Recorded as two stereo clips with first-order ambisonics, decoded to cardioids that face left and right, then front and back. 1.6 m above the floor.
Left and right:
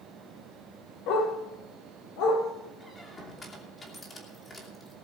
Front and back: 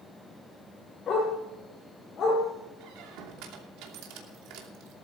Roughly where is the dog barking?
Left.